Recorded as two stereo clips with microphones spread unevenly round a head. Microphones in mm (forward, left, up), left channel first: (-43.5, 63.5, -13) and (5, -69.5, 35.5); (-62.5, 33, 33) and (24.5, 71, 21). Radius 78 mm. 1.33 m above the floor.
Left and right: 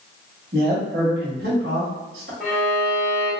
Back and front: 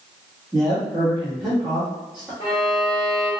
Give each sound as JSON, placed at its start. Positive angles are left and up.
{"t": 0.5, "sound": "a man speaking", "azimuth_deg": -60, "distance_m": 1.5}
{"t": 2.4, "sound": "a violin", "azimuth_deg": -170, "distance_m": 1.4}